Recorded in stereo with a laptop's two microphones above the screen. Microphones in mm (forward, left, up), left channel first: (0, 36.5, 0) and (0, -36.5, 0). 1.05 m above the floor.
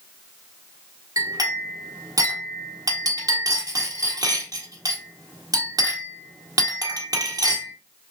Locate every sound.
1.2 s a clink: 55° right (ahead or behind), 1.7 m